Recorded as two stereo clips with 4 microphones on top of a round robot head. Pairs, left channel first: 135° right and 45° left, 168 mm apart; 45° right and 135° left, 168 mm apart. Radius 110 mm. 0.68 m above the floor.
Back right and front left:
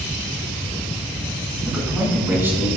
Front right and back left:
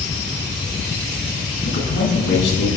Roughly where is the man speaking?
Ahead right.